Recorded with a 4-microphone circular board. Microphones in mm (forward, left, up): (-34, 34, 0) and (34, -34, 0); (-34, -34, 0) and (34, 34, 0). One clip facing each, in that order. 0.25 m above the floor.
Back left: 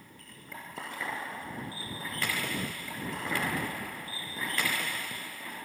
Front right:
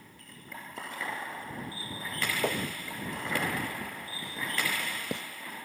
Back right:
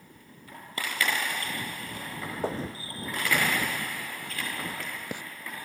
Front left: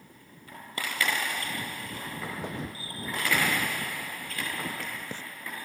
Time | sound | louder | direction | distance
2.4 | footsteps | front right 4 dB, back right 4 dB | 75° right | ?